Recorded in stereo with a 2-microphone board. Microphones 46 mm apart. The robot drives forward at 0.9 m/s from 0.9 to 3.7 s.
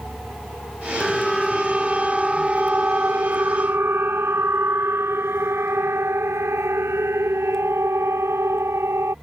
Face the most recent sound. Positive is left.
turn(degrees=-75)  # may be behind; listen again after turning